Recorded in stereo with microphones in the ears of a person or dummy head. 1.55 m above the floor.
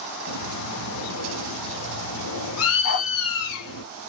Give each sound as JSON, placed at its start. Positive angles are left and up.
{"t": 0.3, "sound": "a bird", "side_deg": 80, "distance_m": 1.2}
{"t": 2.8, "sound": "a dog barking", "side_deg": 60, "distance_m": 1.8}